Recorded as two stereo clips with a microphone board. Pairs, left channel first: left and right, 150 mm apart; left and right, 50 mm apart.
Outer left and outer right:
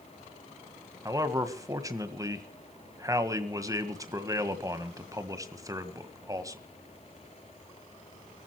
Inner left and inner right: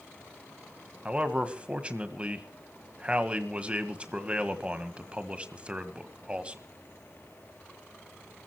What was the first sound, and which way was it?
A man speaking, 25° right (ahead or behind).